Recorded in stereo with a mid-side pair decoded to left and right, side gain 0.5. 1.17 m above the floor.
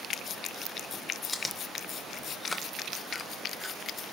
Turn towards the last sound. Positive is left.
turn(degrees=15)